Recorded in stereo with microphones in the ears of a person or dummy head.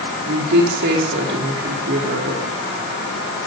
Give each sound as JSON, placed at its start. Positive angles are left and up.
{"t": 0.2, "sound": "a woman speaking", "side_deg": -65, "distance_m": 3.0}